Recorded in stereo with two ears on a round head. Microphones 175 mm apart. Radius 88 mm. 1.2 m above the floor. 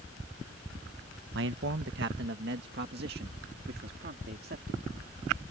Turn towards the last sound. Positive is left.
turn(degrees=-50)  # may be behind; listen again after turning